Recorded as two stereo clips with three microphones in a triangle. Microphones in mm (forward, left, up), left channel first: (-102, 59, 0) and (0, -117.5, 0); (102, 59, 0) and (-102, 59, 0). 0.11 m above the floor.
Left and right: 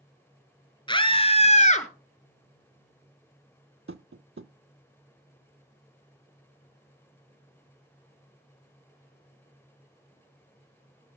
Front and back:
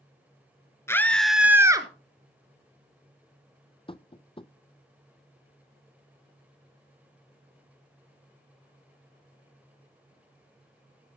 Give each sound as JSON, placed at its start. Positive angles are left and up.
{"t": 0.9, "sound": "a scream", "azimuth_deg": 70, "distance_m": 1.7}
{"t": 3.9, "sound": "tapping", "azimuth_deg": -60, "distance_m": 0.5}